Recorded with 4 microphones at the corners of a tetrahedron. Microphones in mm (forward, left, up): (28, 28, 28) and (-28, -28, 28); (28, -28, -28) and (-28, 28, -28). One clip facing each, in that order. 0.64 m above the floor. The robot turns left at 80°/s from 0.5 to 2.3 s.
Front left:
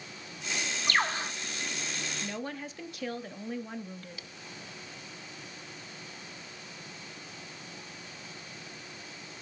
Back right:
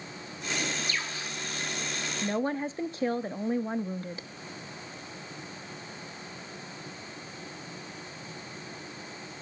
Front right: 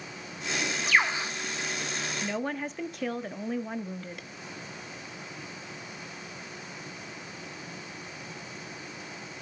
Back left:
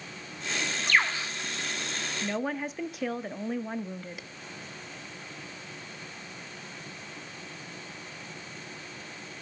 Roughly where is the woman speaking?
Behind right.